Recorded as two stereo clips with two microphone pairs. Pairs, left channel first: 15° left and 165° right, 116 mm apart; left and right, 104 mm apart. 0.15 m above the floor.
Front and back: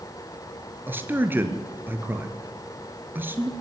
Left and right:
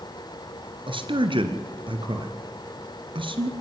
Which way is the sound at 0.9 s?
95° right.